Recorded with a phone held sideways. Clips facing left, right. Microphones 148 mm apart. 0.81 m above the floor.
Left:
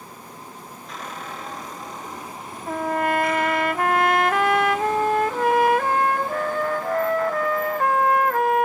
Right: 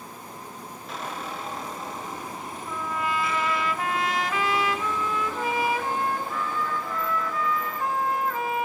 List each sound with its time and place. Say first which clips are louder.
0.9 s a squeak: right 1 dB; 5° right (ahead or behind), 8 m
2.7 s a trumpet: left 8 dB; 60° left (ahead or behind), 0.7 m